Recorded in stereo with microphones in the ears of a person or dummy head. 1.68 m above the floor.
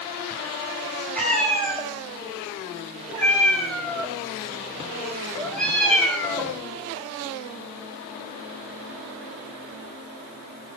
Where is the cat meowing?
Centre (ahead or behind), 5.5 m.